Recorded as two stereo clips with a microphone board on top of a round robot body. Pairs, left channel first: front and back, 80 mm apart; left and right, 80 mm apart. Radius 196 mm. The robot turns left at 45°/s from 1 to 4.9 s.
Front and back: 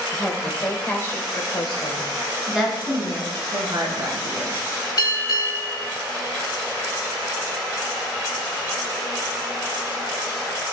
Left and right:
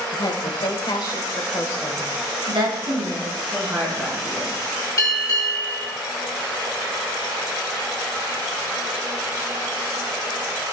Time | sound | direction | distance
0.1 | a woman speaking | 65° left | 3 m
2.5 | a woman speaking | 95° right | 5.5 m
5.0 | a bell | 45° left | 3 m